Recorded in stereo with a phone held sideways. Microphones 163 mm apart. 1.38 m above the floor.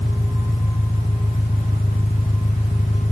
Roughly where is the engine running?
Left.